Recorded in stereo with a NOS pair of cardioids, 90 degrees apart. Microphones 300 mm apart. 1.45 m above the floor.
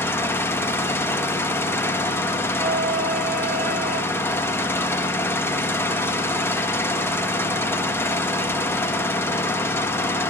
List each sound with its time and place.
0.0 s an engine running: 10° left, 1.5 m
2.6 s a violin: 30° right, 7.5 m